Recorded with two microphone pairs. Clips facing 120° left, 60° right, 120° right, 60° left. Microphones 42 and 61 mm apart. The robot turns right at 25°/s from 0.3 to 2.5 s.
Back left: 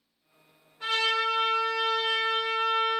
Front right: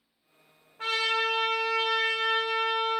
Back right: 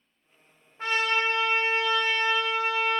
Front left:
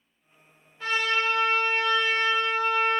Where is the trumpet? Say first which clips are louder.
Back left 1 dB, even; 80° right, 1.0 m; by 3.0 s 40° right, 1.0 m.